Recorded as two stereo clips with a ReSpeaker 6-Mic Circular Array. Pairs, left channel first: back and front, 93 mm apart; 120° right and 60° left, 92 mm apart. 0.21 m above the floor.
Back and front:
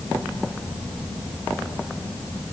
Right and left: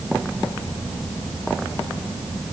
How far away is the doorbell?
I don't hear a doorbell.